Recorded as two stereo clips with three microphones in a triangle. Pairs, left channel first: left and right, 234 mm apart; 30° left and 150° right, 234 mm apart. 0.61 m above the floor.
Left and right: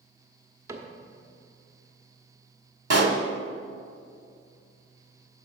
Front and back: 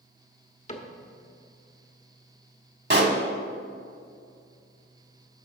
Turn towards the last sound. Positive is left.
turn(degrees=-105)